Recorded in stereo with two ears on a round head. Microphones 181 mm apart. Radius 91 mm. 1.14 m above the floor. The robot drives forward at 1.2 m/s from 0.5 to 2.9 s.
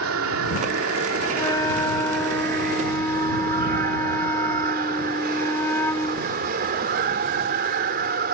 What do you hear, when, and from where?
0.0 s running water: 80° right; by 8.3 s 50° right (ahead or behind)
1.3 s a flute: 20° left (ahead or behind); by 6.3 s 10° left (ahead or behind)